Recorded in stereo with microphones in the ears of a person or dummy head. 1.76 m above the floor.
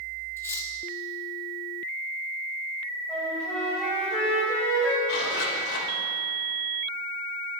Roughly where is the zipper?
Left.